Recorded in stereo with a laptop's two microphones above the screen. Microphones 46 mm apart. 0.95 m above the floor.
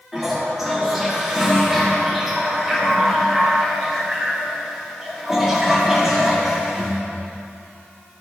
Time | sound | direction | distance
0.1 | a toilet flushing | 5° right (ahead or behind) | 2 m